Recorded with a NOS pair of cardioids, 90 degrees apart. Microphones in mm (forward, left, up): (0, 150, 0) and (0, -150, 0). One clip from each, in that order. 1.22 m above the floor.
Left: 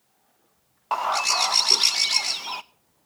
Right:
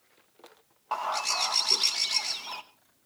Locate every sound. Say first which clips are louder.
0.9 s a bird: left 6 dB; 35° left, 1.1 m